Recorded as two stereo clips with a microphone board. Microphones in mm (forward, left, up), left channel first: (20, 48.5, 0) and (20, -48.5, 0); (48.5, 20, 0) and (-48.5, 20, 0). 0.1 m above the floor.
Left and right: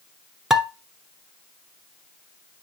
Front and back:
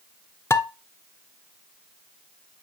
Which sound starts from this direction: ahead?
Dishes clattering, at 0.5 s.